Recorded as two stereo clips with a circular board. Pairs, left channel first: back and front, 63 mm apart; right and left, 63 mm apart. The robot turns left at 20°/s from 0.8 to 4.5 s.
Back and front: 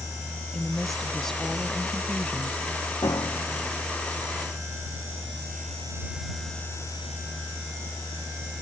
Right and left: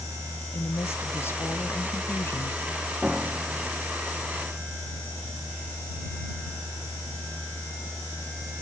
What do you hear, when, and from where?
0.5 s a woman speaking: 90° right; by 2.6 s 125° right
3.0 s a piano: 170° left; by 3.8 s 155° left